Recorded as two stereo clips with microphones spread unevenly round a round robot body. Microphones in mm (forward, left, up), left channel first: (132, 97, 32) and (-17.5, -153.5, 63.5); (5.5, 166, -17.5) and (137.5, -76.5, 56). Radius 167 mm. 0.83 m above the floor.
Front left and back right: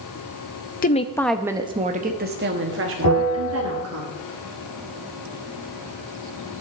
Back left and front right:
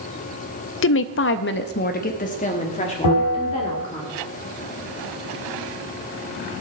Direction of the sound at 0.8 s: 110° left.